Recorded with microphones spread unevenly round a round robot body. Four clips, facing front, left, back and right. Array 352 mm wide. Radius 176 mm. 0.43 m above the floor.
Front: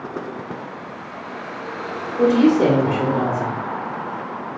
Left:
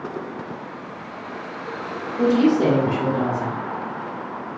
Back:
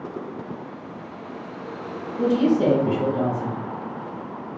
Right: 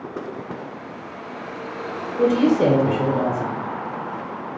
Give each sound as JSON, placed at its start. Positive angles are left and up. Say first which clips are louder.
{"t": 2.2, "sound": "a woman speaking", "louder": "even, front 5 dB", "azimuth_deg": 30, "distance_m": 0.9}